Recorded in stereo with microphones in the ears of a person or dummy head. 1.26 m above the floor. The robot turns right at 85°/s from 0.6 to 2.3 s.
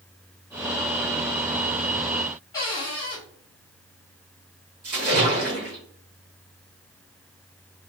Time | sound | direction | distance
2.5 | a cupboard door | 20° left (ahead or behind) | 1.0 m
4.8 | a splash | 45° right (ahead or behind) | 1.3 m